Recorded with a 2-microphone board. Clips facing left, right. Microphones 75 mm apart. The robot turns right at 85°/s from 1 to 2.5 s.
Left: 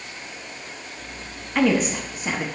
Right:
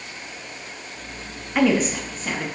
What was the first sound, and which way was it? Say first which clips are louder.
A woman speaking: right 1 dB; 5° right (ahead or behind).